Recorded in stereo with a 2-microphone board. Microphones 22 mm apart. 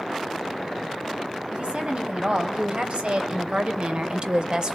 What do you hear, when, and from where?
1.5 s a woman speaking: 60° right (ahead or behind), 3 m; by 4.8 s 45° right (ahead or behind), 1.8 m